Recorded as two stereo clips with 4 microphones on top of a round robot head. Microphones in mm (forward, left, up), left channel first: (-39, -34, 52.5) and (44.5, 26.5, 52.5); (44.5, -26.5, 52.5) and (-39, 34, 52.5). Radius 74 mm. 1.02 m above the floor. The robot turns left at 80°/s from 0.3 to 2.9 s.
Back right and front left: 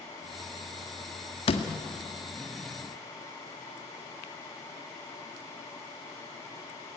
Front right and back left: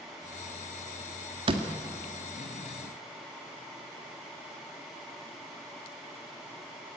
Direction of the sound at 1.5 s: 175° right.